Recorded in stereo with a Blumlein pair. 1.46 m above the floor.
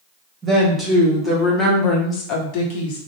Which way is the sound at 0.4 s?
10° right.